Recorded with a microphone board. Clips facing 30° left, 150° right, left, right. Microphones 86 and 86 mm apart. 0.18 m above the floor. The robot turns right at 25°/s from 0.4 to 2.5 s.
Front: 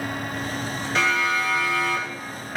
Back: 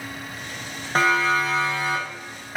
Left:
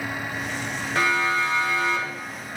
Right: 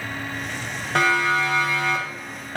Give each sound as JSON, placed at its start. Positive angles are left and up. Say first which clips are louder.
{"t": 0.9, "sound": "a siren", "louder": "back 3 dB, right 3 dB", "azimuth_deg": -105, "distance_m": 9.0}